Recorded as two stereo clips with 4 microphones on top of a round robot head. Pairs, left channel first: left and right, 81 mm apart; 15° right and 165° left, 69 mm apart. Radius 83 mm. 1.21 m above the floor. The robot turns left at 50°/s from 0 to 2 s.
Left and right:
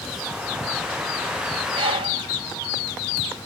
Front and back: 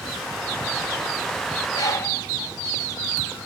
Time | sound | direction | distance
1.7 | a bird | 55° right | ?